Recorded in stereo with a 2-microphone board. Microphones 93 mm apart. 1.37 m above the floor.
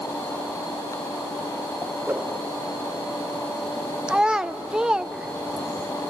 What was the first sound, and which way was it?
A whoosh, 20° right (ahead or behind).